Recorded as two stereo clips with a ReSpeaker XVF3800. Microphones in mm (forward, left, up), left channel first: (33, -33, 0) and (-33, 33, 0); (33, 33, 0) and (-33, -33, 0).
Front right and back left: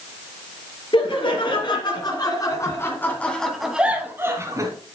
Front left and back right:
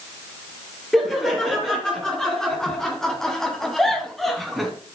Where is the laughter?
40° right, 3.5 m; by 4.7 s 135° left, 2 m.